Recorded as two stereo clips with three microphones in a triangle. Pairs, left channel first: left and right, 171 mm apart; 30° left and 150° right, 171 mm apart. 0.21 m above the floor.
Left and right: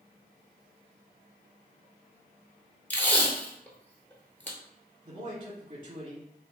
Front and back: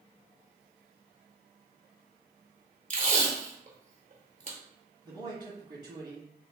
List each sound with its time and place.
2.9 s tape being pulled: 170° left, 0.8 m
5.0 s a man speaking: 105° right, 1.2 m